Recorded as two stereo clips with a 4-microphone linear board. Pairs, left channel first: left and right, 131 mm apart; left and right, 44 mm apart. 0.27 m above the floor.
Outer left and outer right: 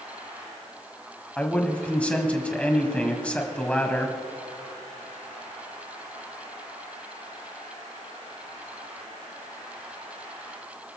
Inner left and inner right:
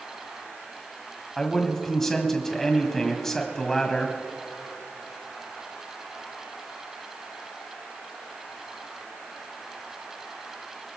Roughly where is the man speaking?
Centre.